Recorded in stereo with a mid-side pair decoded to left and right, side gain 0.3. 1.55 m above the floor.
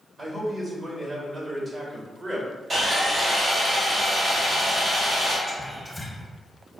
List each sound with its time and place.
0.2 s a man speaking: 55° right, 1.4 m
2.7 s sawing: 60° right, 1.5 m
5.5 s whispering: 20° left, 0.7 m